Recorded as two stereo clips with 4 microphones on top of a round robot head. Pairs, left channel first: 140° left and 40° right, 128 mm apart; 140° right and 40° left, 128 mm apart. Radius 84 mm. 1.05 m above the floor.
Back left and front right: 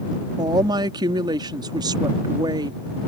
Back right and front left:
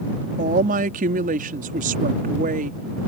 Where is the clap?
No clap in this recording.